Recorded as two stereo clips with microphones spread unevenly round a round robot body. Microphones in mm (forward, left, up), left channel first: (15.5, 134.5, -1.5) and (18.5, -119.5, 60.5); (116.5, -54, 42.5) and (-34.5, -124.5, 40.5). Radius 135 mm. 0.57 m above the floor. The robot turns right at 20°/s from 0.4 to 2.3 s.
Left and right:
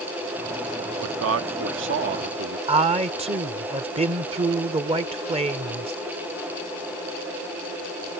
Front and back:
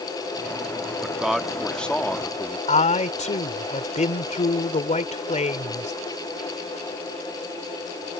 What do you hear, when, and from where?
1.0 s a man speaking: 75° right; by 2.6 s 50° right
2.7 s a man speaking: 15° right